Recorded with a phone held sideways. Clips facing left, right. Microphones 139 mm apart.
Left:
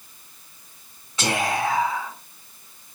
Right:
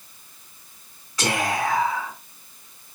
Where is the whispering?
25° left (ahead or behind), 1.9 m.